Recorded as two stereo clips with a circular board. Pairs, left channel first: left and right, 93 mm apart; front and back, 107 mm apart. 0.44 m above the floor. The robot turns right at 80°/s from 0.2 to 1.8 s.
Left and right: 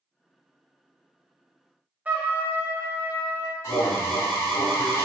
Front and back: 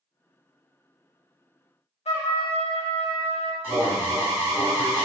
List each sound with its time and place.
2.0 s a trumpet: 20° right, 0.5 m
3.6 s an alarm: 125° left, 1.1 m